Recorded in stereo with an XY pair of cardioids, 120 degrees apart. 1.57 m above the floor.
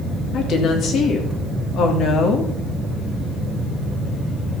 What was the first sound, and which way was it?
A woman speaking, 55° left.